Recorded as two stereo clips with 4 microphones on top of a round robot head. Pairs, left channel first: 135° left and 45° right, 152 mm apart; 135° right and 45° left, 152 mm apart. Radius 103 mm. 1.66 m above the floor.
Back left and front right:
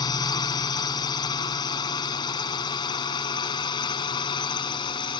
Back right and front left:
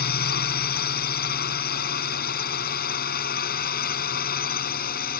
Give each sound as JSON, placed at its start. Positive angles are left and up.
{"t": 0.0, "sound": "a drone", "azimuth_deg": -160}